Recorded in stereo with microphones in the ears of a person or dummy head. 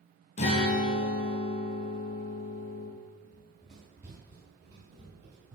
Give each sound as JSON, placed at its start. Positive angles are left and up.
{"t": 0.4, "sound": "a guitar", "side_deg": 25, "distance_m": 0.7}
{"t": 3.2, "sound": "running footsteps", "side_deg": 10, "distance_m": 1.8}